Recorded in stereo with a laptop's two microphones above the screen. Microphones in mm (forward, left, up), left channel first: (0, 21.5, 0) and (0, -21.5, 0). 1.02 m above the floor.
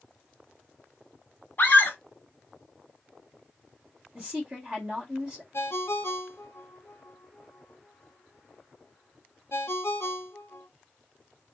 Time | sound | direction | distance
1.6 | a scream | 45° left (ahead or behind) | 1.0 m
4.2 | a woman speaking | 20° right (ahead or behind) | 1.3 m
5.5 | a ringtone | 70° left (ahead or behind) | 0.6 m